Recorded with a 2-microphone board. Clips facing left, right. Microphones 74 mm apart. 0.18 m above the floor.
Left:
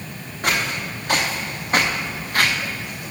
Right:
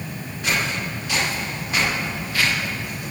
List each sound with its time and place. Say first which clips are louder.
0.4 s footsteps: left 1 dB; 45° left (ahead or behind), 3 m